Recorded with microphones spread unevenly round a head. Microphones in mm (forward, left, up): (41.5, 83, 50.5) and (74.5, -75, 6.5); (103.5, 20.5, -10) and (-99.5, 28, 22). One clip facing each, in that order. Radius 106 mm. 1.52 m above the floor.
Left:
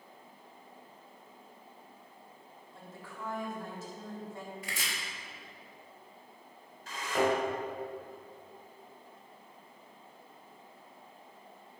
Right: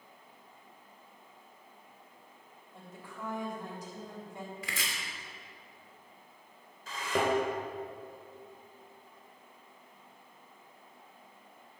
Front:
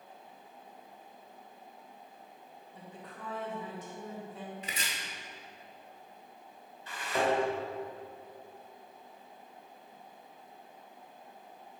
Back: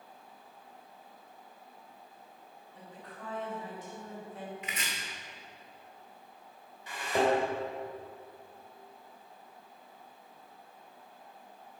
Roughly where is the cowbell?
No cowbell in this recording.